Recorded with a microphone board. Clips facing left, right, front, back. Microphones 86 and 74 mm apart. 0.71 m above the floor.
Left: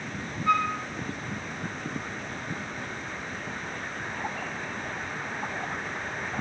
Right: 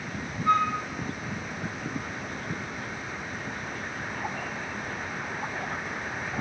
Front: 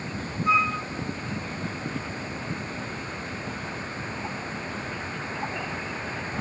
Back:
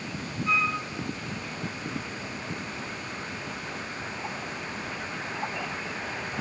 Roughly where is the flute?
Ahead right.